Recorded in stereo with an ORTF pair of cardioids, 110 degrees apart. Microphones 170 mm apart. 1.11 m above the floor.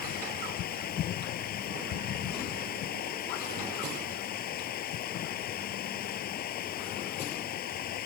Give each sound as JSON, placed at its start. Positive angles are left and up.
{"t": 0.0, "sound": "running water", "azimuth_deg": 65}